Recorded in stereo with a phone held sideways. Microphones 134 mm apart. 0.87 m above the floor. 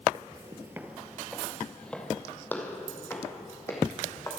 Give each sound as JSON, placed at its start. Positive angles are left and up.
{"t": 0.1, "sound": "footsteps", "side_deg": -30, "distance_m": 0.9}